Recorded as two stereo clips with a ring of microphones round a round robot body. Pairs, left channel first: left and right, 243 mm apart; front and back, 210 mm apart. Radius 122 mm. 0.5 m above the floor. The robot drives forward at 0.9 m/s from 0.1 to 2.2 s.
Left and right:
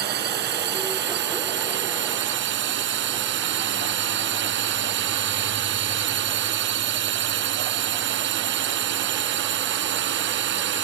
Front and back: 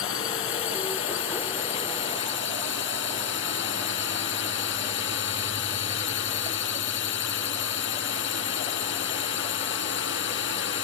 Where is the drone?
40° right; by 10.8 s 45° right.